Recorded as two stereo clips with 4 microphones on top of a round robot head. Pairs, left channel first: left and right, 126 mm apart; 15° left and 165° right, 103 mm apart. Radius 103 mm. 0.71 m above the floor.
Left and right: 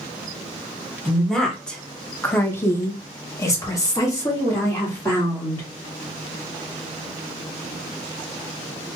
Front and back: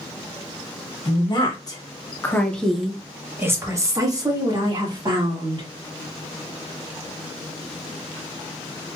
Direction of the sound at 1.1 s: Straight ahead.